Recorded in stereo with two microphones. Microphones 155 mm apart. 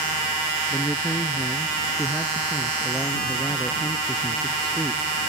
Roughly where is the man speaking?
Centre.